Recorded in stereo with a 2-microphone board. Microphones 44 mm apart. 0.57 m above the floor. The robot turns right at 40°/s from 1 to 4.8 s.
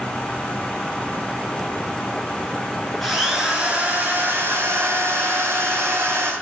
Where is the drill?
Straight behind, 8.5 m; by 6.3 s 110° right, 8.5 m.